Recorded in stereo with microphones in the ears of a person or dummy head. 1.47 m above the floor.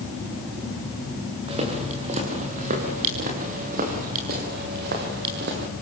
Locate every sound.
1.5 s footsteps: 35° right (ahead or behind), 7.5 m; by 5.7 s 60° right (ahead or behind), 7.5 m